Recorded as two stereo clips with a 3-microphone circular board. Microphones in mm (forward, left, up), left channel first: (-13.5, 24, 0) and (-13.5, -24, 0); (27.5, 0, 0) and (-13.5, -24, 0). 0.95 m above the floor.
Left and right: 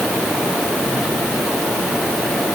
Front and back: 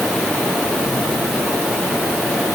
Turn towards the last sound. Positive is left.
No sound to turn to.